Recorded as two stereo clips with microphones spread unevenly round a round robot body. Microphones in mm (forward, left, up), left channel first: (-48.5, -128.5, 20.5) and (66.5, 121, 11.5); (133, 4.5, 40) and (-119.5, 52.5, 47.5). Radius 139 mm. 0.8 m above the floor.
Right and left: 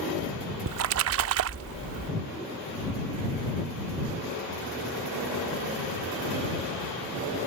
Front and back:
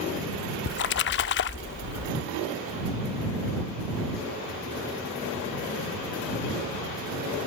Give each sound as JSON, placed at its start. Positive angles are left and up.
{"t": 0.7, "sound": "a splash", "azimuth_deg": 30}